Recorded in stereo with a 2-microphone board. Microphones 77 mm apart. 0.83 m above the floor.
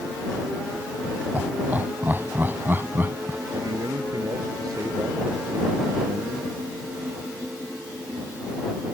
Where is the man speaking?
55° right (ahead or behind).